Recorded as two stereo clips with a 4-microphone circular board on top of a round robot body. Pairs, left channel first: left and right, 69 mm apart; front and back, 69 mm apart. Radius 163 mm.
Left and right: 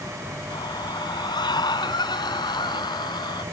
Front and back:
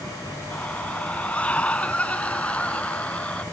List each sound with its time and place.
0.5 s a scream: 70° left; by 3.4 s 75° left